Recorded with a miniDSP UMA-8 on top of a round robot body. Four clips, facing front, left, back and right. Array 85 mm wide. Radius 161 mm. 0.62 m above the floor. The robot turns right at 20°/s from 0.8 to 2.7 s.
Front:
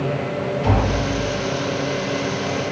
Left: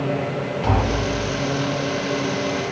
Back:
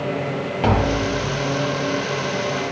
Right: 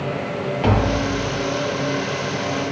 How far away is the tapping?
About 1.5 m.